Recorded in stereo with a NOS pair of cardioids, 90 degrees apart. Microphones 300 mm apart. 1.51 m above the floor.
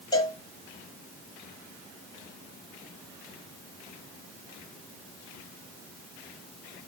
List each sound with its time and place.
0.1 s a cowbell: 15° left, 1.5 m